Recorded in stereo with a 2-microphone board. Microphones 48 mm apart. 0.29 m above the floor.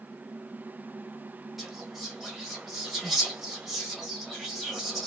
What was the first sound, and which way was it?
Whispering, centre (ahead or behind).